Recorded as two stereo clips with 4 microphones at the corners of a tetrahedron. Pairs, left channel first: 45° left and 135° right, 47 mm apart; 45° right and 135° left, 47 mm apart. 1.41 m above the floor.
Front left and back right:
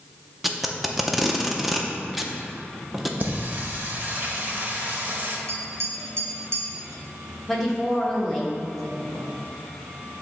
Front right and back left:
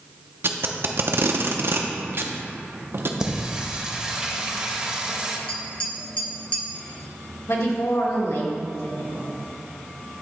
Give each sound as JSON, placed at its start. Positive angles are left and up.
{"t": 0.4, "sound": "tape being pulled", "azimuth_deg": 135, "distance_m": 0.5}
{"t": 3.2, "sound": "singing", "azimuth_deg": -155, "distance_m": 0.8}
{"t": 5.5, "sound": "tapping", "azimuth_deg": -110, "distance_m": 1.1}
{"t": 7.5, "sound": "a woman speaking", "azimuth_deg": -40, "distance_m": 1.4}